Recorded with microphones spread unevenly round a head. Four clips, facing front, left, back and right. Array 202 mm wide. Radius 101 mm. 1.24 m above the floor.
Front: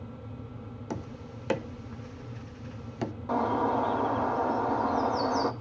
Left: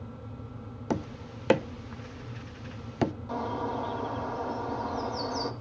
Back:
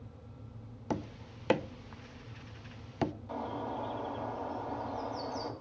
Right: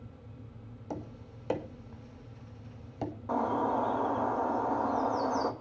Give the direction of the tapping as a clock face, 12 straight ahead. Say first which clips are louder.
Left 9 dB, back 2 dB; 9 o'clock.